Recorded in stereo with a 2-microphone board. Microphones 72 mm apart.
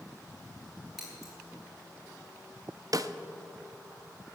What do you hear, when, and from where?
1.0 s scissors: 5° right (ahead or behind), 5.5 m
2.9 s a snare drum: 55° right (ahead or behind), 0.6 m